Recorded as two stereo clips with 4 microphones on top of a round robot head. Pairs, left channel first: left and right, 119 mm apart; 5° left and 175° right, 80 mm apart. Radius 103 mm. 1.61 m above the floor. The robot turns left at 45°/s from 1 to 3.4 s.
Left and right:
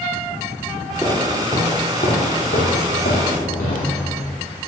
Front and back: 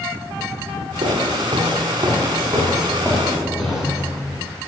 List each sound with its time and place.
1.0 s footsteps: straight behind, 2.5 m; by 4.0 s 95° left, 3.5 m